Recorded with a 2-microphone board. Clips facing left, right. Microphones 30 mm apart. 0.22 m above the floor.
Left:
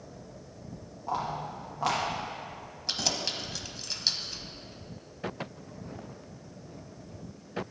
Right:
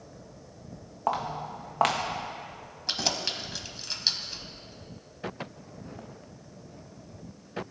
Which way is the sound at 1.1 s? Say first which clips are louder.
Right 3 dB; 85° right.